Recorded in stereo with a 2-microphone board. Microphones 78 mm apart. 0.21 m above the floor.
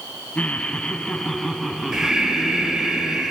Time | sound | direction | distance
0.3 | laughter | 20° left (ahead or behind) | 1.8 m
1.9 | breathing | 5° right (ahead or behind) | 3.5 m